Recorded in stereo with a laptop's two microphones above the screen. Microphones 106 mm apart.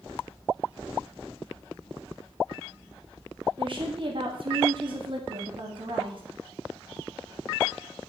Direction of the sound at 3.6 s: 50° right (ahead or behind).